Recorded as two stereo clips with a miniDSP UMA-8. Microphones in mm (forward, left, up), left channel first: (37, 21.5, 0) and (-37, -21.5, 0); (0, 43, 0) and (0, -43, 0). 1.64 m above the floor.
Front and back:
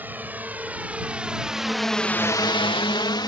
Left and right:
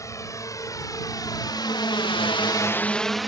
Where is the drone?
140° left; by 3.3 s straight ahead.